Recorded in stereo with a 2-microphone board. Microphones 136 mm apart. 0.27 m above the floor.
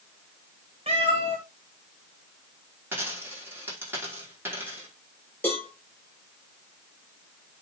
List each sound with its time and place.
0.9 s a cat meowing: 50° right (ahead or behind), 3.5 m
2.9 s a dropped coin: 15° right (ahead or behind), 8 m
5.4 s a cowbell: 10° left (ahead or behind), 8.5 m